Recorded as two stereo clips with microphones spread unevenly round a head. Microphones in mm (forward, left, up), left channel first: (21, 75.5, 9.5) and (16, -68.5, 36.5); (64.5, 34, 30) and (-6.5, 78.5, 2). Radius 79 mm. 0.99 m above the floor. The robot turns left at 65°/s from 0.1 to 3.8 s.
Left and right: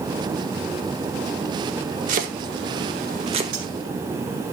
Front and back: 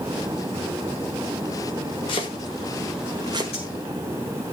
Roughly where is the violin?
No violin in this recording.